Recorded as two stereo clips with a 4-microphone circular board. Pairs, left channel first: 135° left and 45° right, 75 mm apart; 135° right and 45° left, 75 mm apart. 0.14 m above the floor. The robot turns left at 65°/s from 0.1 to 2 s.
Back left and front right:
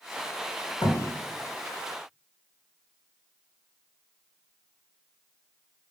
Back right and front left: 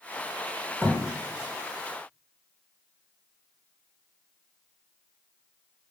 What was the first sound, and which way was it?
A thud, 135° left.